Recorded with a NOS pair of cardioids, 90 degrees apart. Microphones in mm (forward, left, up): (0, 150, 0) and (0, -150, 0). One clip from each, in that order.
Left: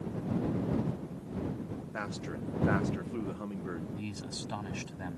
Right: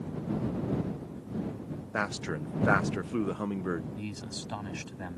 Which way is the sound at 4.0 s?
10° right.